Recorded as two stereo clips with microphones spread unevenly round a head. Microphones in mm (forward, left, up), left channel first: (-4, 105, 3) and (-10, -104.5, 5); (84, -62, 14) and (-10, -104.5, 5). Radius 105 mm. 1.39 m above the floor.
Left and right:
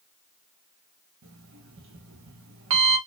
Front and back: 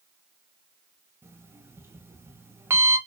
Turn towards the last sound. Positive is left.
turn(degrees=-90)